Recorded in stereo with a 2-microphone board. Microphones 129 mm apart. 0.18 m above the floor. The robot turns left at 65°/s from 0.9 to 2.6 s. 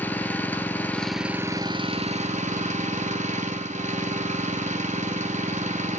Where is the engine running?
15° left, 0.8 m; by 6.0 s 95° right, 0.8 m.